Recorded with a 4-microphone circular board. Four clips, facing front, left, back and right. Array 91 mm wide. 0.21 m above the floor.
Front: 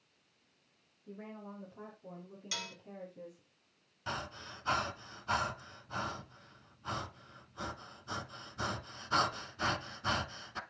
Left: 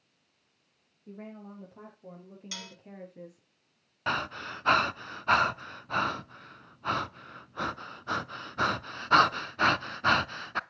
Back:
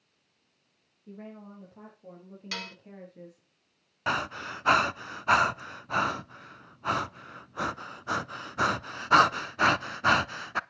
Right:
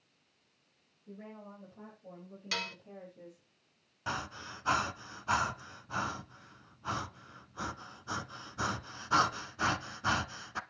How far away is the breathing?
About 0.5 m.